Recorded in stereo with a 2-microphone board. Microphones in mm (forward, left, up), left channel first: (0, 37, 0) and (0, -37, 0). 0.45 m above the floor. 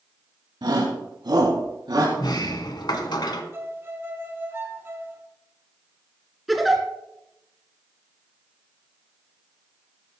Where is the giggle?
Centre (ahead or behind), 2.5 m.